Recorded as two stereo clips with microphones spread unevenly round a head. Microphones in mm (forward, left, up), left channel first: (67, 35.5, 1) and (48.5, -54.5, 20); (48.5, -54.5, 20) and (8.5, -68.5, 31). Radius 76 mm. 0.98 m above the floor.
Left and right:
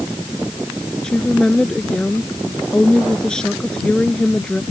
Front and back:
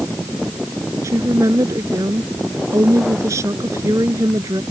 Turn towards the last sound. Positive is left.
turn(degrees=165)